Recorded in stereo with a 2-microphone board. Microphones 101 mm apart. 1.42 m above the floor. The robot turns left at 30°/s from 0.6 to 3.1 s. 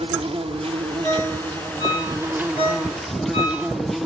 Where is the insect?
105° right, 0.7 m; by 4.1 s straight behind, 0.7 m.